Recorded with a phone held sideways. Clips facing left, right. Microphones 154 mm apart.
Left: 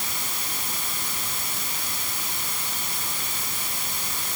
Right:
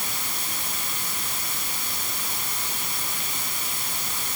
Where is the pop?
No pop in this recording.